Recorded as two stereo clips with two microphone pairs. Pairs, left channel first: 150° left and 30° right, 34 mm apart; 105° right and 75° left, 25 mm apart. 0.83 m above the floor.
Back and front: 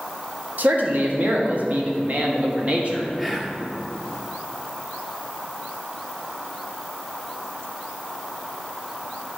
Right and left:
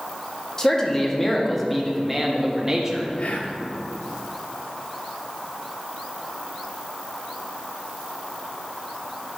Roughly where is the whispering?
Right.